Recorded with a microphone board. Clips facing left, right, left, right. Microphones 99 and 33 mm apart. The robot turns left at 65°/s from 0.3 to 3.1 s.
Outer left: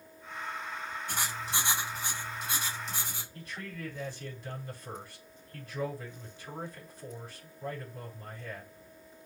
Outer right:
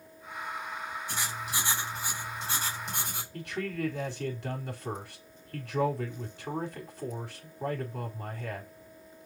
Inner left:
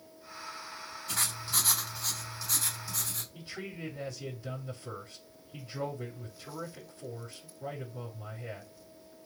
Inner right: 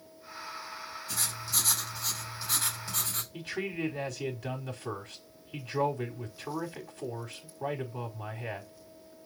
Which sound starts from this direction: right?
A man speaking, at 3.3 s.